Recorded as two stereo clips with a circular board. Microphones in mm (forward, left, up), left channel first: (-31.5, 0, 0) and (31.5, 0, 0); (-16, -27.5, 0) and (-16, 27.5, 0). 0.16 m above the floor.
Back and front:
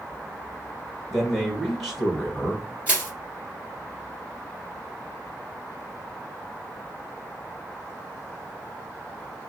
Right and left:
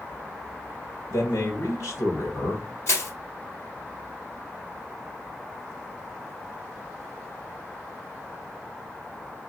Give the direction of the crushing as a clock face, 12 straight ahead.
2 o'clock.